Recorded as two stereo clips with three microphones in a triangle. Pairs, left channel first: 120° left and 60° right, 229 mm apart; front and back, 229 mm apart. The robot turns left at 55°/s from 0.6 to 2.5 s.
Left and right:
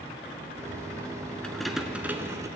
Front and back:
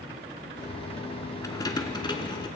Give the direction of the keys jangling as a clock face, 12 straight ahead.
11 o'clock.